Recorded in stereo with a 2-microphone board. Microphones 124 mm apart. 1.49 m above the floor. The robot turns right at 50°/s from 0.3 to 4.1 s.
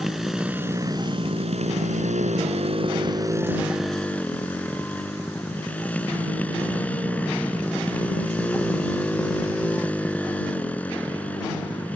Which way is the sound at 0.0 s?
175° right.